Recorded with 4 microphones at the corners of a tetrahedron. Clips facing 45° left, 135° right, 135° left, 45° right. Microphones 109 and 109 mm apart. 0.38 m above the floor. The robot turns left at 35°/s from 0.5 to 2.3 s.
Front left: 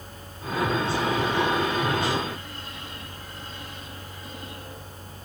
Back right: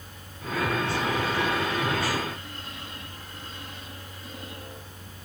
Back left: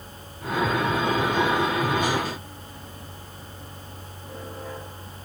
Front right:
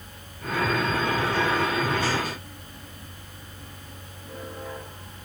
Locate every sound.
Only background noise.